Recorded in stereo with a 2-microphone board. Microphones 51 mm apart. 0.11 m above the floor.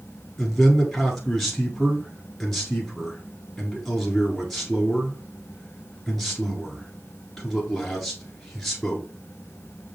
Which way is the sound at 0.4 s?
5° left (ahead or behind).